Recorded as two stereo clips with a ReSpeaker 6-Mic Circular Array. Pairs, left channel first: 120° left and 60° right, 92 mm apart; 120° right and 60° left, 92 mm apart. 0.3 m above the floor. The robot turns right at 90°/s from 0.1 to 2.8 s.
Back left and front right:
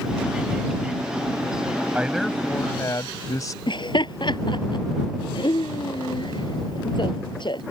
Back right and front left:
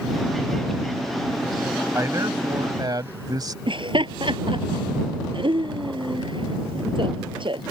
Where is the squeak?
I don't hear a squeak.